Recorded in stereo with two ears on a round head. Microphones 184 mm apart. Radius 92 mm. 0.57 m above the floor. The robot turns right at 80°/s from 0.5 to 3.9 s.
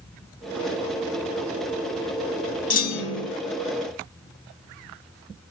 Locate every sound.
2.7 s a clunk: 40° left, 0.7 m; by 3.3 s 90° left, 0.7 m